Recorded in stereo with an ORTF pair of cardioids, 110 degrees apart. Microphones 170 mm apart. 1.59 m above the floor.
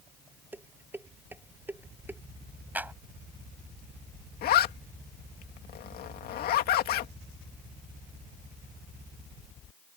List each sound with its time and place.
0.5 s dishes clattering: 10° right
2.8 s a clap: 10° right
4.4 s a zipper: 65° left